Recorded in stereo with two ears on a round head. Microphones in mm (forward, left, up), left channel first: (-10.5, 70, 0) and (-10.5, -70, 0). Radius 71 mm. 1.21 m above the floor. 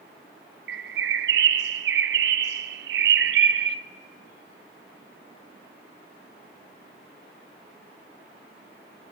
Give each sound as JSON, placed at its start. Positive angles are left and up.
{"t": 0.7, "sound": "a bird", "side_deg": -70, "distance_m": 0.5}